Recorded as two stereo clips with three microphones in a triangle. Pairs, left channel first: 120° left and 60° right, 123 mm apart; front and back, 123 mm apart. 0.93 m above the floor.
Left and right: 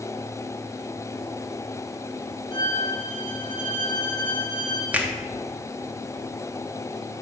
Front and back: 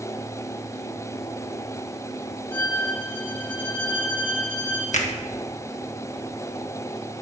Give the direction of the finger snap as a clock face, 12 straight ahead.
11 o'clock.